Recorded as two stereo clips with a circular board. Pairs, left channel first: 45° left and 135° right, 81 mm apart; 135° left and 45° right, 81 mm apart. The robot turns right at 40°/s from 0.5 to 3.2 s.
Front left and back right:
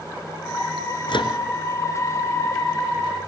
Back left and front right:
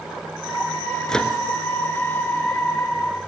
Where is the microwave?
50° left, 3 m; by 1.4 s 60° left, 3 m.